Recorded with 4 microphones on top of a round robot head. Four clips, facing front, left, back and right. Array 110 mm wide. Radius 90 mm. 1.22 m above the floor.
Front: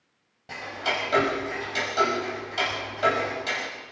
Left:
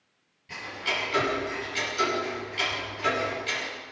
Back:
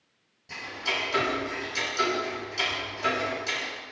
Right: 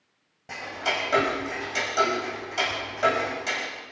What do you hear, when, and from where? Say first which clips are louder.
0.5 s ticking: right 4 dB, front 4 dB; 55° right, 5.5 m